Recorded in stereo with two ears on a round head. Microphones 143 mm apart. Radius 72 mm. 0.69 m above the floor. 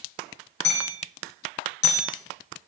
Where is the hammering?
90° left, 9.5 m.